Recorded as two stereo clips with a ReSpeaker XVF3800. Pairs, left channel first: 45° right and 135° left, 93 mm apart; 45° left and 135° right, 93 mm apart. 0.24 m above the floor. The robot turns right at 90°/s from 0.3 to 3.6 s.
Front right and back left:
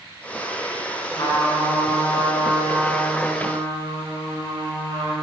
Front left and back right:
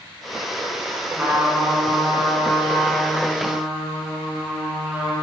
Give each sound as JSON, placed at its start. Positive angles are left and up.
{"t": 1.1, "sound": "a trumpet", "azimuth_deg": -75, "distance_m": 3.0}